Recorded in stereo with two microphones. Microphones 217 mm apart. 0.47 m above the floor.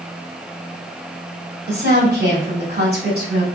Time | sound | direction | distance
1.7 | a woman speaking | 45° right (ahead or behind) | 2.5 m